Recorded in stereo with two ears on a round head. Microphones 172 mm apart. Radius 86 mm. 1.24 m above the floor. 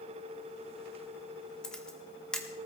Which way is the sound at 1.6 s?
5° left (ahead or behind).